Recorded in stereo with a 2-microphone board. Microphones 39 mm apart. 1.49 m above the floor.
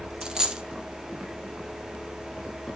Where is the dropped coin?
20° right (ahead or behind), 0.9 m.